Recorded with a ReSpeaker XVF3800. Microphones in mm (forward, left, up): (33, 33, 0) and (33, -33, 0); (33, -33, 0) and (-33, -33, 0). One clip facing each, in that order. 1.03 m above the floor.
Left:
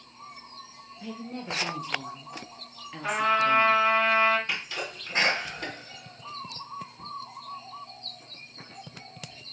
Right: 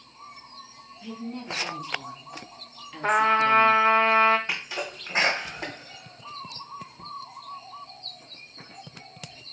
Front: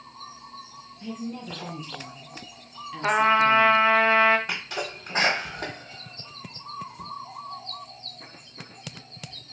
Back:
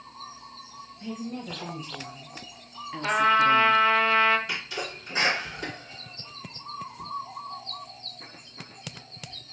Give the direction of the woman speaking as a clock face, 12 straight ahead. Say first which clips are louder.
Right 1 dB, front 1 dB; 8 o'clock.